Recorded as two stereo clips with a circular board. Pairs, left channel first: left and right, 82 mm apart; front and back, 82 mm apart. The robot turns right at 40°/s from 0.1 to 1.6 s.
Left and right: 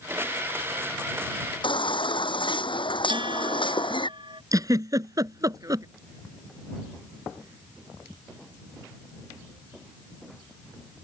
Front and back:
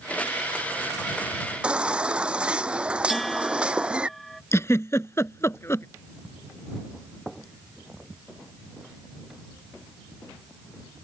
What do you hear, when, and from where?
1.6 s a baby crying: 100° left
3.1 s a bell: 90° right
4.5 s a giggle: 55° right